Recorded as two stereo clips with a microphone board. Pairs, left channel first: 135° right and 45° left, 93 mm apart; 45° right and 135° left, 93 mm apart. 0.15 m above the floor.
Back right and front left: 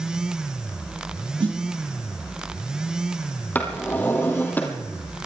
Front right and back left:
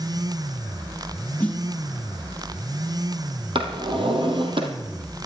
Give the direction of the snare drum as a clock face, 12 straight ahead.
11 o'clock.